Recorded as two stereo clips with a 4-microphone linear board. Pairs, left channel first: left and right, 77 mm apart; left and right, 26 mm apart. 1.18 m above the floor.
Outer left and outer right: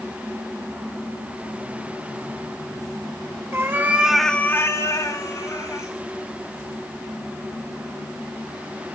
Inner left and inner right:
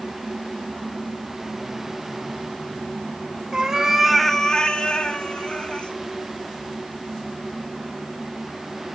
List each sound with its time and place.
3.5 s a cat meowing: 30° right (ahead or behind), 1.4 m; by 5.9 s 45° left (ahead or behind), 2.5 m